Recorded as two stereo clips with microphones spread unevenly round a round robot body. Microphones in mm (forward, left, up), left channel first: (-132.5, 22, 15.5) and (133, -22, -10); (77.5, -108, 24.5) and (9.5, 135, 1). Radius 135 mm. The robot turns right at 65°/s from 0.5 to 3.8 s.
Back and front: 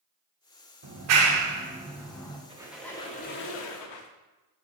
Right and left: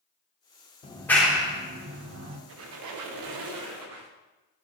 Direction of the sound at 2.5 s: 60° left.